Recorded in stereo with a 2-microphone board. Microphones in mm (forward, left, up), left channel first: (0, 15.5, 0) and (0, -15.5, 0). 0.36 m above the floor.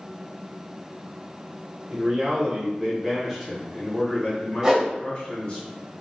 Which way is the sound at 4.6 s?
25° right (ahead or behind).